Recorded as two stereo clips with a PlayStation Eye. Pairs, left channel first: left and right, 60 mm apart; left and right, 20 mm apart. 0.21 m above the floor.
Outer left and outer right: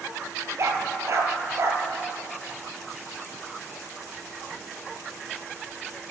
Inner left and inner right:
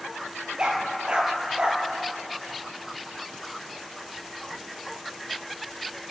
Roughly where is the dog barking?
Right.